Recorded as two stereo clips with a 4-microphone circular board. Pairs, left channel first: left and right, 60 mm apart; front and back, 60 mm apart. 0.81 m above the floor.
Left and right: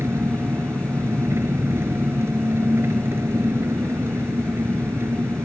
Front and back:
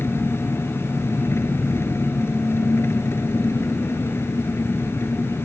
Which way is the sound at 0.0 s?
45° right.